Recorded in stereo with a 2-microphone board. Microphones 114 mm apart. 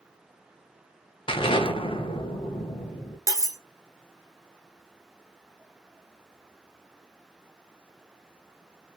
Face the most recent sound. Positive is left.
turn(degrees=-30)  # may be behind; listen again after turning